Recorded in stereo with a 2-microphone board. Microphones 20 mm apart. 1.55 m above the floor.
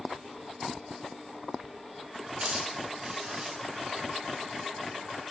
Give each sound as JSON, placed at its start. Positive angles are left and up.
{"t": 2.4, "sound": "a hiss", "side_deg": -55, "distance_m": 2.5}